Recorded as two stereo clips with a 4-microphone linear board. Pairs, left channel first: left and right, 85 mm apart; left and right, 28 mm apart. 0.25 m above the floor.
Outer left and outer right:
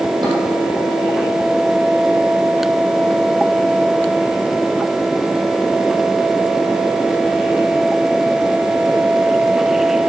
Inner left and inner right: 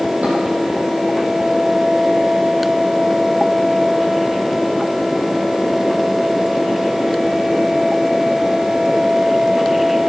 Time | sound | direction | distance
0.2 | dishes clattering | 55° right (ahead or behind) | 7 m